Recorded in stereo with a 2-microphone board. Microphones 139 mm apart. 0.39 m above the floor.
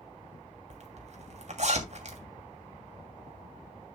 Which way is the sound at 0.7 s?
55° right (ahead or behind).